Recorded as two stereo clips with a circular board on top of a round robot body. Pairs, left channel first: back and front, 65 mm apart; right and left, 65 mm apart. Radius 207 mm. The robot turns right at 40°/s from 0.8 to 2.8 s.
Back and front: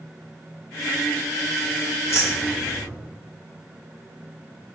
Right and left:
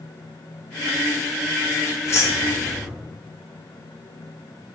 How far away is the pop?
No pop in this recording.